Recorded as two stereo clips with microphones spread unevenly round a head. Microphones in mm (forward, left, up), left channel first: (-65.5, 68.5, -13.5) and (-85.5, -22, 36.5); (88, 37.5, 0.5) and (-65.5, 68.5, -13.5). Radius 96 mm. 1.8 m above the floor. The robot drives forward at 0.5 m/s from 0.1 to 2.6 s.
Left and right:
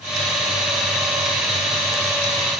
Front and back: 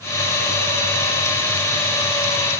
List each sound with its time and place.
Only background noise.